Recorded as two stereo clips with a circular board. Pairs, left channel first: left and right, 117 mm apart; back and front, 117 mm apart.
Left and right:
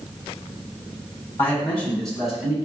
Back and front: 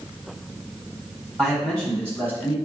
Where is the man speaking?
110° left, 1.4 m; by 2.5 s 150° right, 1.4 m.